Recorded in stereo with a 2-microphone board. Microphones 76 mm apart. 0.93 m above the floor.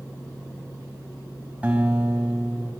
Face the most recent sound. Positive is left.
turn(degrees=-20)  # may be behind; listen again after turning